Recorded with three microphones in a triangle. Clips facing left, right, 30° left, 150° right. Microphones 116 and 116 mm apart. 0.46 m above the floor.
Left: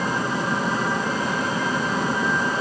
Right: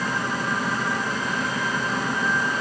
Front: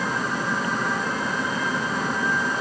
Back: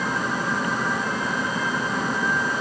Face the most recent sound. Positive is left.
No sound to turn to.